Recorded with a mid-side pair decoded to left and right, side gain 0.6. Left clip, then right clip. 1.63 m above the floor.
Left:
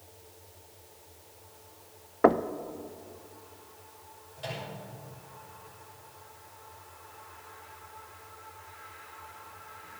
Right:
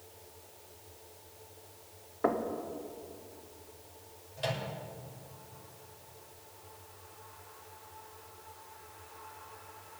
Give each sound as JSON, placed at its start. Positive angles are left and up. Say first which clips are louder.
{"t": 2.2, "sound": "knocking", "louder": "left 8 dB", "azimuth_deg": 45, "distance_m": 0.7}
{"t": 4.4, "sound": "a microwave", "louder": "right 3 dB", "azimuth_deg": -35, "distance_m": 6.5}